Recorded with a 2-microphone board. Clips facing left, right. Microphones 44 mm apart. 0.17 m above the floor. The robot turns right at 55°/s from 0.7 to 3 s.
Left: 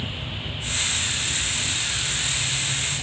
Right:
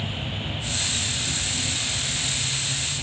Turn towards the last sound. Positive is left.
turn(degrees=10)